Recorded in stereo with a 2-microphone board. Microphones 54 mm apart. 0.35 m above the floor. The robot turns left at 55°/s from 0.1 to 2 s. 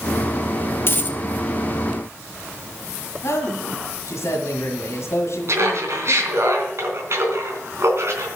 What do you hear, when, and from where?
0.9 s a dropped coin: 45° left (ahead or behind), 1.0 m; by 1.2 s 30° left (ahead or behind), 1.0 m
3.2 s a man speaking: 65° left (ahead or behind), 2 m
5.5 s laughter: 55° right (ahead or behind), 3.5 m